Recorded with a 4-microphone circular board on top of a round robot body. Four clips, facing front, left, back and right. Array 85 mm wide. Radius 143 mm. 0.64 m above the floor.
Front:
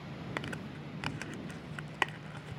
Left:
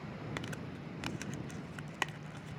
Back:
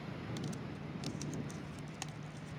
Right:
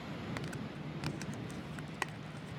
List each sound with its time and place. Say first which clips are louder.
0.4 s crumpling: right 1 dB, front 3 dB; 5° left